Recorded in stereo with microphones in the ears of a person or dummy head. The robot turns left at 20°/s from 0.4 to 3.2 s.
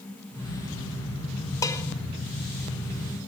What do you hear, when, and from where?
1.6 s dishes clattering: 15° left (ahead or behind), 1.6 m; by 1.8 s 10° left (ahead or behind), 1.6 m